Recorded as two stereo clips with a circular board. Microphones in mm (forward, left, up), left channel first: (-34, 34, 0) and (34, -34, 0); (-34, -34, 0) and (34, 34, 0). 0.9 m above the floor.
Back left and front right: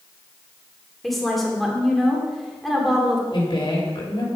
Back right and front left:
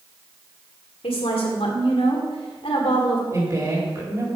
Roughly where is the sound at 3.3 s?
Left.